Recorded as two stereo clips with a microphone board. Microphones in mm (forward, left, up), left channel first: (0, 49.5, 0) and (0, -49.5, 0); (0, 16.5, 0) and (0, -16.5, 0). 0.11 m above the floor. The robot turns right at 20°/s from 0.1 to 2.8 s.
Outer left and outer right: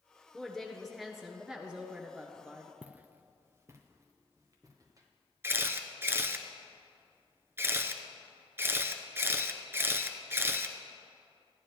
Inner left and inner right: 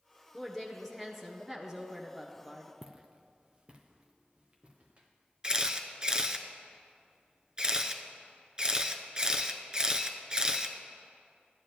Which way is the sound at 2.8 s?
10° right (ahead or behind).